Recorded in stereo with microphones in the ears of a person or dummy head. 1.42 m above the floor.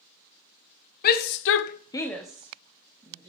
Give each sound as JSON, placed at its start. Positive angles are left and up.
{"t": 1.0, "sound": "a shout", "side_deg": 55, "distance_m": 1.1}